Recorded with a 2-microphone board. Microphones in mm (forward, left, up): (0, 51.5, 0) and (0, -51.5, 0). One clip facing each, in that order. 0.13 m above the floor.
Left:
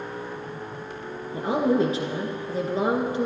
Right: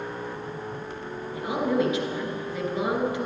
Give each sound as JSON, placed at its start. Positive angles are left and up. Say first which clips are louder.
{"t": 1.3, "sound": "a woman speaking", "louder": "left 3 dB", "side_deg": 35, "distance_m": 2.0}